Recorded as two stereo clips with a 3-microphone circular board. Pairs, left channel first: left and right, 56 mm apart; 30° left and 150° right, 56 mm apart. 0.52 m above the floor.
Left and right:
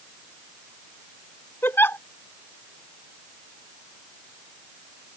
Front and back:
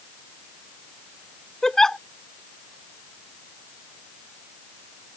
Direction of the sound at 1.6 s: 110° left.